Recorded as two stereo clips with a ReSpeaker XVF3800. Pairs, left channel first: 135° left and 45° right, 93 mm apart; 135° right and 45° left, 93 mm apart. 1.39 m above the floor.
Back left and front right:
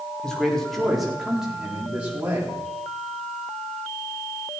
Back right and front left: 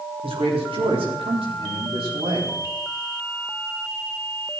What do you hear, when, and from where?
0.2 s a man speaking: 50° left, 4 m; by 2.6 s 25° left, 4 m